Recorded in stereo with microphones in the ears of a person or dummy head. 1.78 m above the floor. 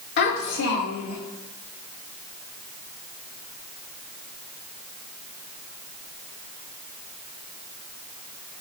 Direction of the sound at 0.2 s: 45° left (ahead or behind).